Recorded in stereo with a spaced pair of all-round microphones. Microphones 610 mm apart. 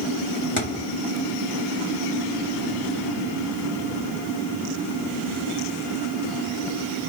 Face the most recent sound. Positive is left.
turn(degrees=20)  # may be behind; listen again after turning